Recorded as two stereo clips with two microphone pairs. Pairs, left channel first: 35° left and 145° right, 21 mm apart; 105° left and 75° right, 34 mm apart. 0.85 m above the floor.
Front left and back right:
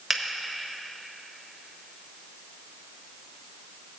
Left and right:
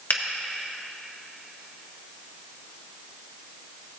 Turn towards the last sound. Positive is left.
turn(degrees=130)